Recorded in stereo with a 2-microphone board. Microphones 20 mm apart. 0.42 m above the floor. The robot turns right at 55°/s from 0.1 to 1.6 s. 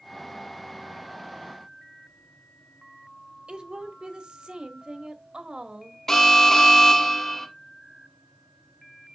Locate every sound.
3.5 s a woman speaking: 55° right (ahead or behind), 1.5 m
6.1 s an alarm: 20° left (ahead or behind), 1.5 m